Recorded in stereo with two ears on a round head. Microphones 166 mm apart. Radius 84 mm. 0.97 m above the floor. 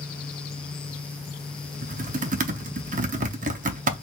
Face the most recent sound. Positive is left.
turn(degrees=-45)  # may be behind; listen again after turning